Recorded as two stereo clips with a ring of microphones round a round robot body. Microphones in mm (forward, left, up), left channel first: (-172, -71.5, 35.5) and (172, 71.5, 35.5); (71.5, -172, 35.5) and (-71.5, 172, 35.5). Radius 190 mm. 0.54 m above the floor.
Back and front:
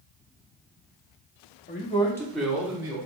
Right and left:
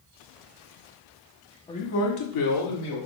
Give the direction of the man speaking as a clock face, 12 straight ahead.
4 o'clock.